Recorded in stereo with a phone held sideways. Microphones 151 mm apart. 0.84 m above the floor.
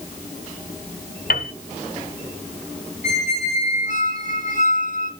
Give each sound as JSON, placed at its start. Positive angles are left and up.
{"t": 1.3, "sound": "a piano", "side_deg": 85, "distance_m": 1.7}
{"t": 3.0, "sound": "a squeak", "side_deg": -75, "distance_m": 3.0}